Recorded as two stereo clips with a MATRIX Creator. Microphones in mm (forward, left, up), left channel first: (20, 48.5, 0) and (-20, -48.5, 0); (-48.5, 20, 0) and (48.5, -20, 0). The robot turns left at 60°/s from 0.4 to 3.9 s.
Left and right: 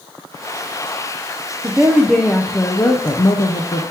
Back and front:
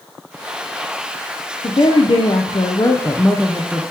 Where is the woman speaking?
175° right, 0.7 m; by 3.8 s 55° left, 0.7 m.